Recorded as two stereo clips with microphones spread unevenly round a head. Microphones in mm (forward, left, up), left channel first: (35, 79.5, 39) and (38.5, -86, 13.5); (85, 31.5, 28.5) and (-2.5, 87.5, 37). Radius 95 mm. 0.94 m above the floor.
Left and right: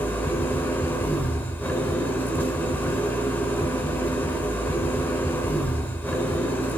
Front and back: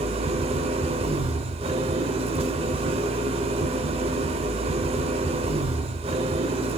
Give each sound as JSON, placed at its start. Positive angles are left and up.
{"t": 0.0, "sound": "an engine running", "azimuth_deg": 165, "distance_m": 0.9}